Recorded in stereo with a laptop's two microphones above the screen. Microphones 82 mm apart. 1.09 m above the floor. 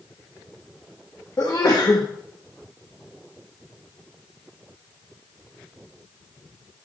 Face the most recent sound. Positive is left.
turn(degrees=50)  # may be behind; listen again after turning